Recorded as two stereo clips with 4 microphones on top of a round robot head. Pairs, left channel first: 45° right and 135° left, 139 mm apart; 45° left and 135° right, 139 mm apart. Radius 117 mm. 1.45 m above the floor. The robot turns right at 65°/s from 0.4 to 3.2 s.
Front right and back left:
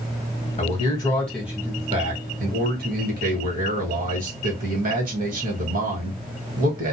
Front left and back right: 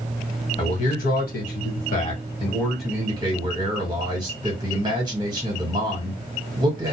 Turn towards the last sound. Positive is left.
turn(degrees=165)